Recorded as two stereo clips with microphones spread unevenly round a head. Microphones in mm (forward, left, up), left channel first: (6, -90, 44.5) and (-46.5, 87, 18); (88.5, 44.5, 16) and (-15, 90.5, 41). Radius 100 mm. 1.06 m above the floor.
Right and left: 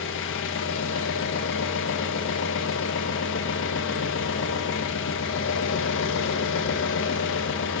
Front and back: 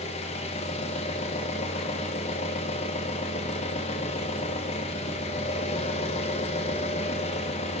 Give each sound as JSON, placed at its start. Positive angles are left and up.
{"t": 0.0, "sound": "an engine running", "azimuth_deg": -50, "distance_m": 1.4}